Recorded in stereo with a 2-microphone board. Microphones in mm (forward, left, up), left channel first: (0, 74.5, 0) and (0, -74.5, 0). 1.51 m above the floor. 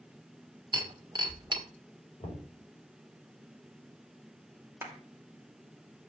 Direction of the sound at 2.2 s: 35° left (ahead or behind).